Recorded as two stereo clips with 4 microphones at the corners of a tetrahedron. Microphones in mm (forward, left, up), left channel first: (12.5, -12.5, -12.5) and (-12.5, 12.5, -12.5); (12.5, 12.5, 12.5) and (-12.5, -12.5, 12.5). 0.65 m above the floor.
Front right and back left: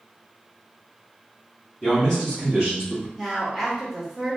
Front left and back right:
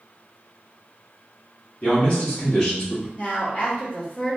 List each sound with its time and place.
1.8 s a man speaking: 30° left, 1.0 m; by 3.1 s 75° left, 1.1 m
3.2 s a woman speaking: 40° left, 0.8 m